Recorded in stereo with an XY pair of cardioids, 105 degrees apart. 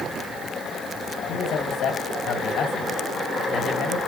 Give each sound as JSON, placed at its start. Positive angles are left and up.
{"t": 1.3, "sound": "a man speaking", "azimuth_deg": 70, "distance_m": 3.5}